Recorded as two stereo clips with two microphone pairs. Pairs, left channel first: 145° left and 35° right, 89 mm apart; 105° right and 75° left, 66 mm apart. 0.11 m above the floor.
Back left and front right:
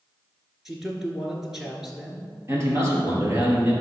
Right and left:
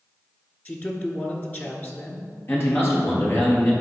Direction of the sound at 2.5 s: 75° right.